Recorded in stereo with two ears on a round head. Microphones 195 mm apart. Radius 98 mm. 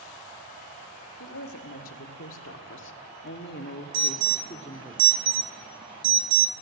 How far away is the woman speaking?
About 2.0 m.